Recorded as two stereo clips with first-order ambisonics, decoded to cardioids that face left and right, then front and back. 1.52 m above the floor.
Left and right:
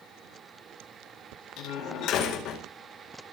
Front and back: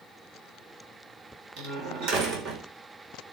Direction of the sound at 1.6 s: 135° left.